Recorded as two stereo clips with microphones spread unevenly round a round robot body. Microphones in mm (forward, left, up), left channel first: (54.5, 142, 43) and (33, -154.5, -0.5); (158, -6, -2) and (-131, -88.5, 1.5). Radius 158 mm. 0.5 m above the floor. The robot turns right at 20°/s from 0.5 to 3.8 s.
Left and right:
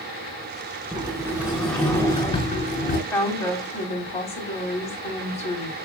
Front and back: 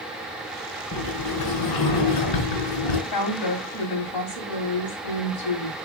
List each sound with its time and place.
0.9 s a sliding door: 20° right, 3.5 m; by 3.0 s 25° left, 3.5 m
3.1 s a woman speaking: straight ahead, 3.5 m; by 5.7 s 10° left, 3.5 m